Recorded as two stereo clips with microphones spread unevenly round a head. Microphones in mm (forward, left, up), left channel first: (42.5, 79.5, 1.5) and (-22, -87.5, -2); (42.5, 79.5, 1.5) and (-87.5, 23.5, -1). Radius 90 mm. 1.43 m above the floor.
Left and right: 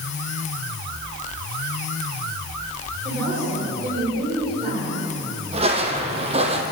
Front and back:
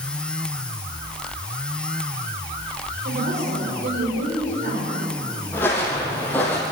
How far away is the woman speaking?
About 6.5 m.